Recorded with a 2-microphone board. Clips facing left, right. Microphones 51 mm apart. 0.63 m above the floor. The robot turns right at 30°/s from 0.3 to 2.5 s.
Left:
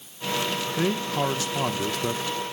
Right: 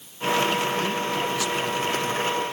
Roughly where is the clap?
I don't hear a clap.